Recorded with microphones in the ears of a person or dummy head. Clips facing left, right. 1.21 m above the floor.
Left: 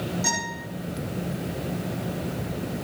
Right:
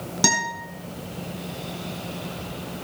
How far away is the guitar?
About 5.5 m.